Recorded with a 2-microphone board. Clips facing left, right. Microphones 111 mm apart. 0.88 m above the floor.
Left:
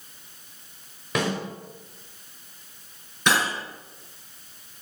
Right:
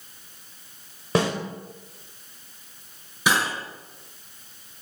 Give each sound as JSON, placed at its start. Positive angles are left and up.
{"t": 1.1, "sound": "a snare drum", "side_deg": -35, "distance_m": 3.5}
{"t": 3.3, "sound": "cutlery clinking", "side_deg": -5, "distance_m": 6.0}